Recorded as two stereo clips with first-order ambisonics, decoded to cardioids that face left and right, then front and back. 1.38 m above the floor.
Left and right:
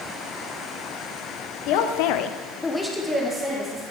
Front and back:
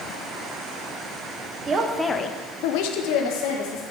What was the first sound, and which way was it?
A man speaking, 115° left.